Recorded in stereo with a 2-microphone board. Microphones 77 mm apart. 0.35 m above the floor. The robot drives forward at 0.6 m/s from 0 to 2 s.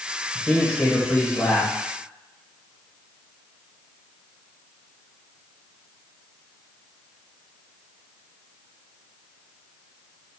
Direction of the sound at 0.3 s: 10° left (ahead or behind).